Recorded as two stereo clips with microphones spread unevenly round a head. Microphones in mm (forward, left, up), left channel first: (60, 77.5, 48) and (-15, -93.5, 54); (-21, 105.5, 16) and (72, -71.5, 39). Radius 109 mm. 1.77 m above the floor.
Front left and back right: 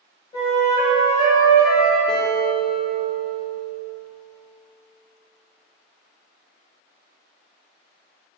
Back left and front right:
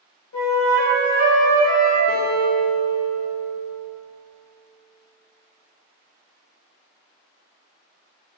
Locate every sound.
0.3 s a flute: 135° left, 1.3 m
2.1 s a guitar: 130° left, 0.6 m